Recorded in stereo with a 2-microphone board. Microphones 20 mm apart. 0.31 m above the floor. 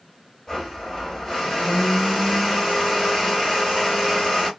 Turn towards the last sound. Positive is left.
turn(degrees=40)  # may be behind; listen again after turning